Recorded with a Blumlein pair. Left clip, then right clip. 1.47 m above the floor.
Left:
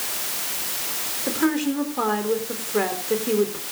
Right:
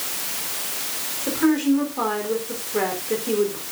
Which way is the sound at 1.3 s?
5° left.